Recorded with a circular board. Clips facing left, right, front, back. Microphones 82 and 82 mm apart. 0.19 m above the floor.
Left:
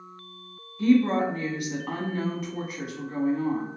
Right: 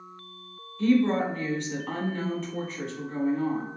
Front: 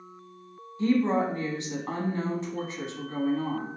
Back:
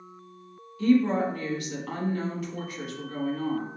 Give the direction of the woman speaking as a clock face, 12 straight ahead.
11 o'clock.